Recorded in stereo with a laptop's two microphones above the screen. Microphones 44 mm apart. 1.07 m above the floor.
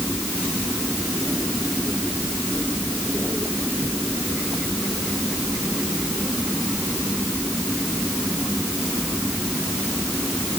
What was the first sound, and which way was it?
Only background noise.